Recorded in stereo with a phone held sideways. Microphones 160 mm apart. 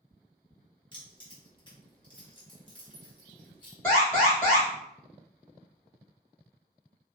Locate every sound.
0.9 s keys jangling: 30° left (ahead or behind), 1.0 m
3.8 s an alarm: 15° left (ahead or behind), 1.7 m